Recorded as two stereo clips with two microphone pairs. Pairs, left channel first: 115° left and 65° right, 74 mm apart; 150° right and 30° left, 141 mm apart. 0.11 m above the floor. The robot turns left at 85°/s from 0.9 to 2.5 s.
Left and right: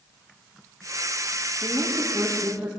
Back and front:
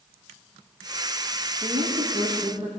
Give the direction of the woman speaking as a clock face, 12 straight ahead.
10 o'clock.